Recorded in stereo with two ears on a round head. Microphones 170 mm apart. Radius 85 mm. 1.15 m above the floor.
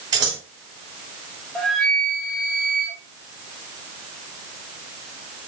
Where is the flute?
5° left (ahead or behind), 2 m.